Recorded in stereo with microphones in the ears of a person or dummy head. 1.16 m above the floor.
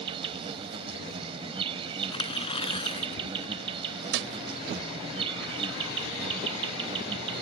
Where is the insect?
25° right (ahead or behind).